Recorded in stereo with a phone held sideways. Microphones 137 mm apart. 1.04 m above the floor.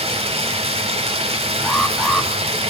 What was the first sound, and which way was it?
Running water, 45° right (ahead or behind).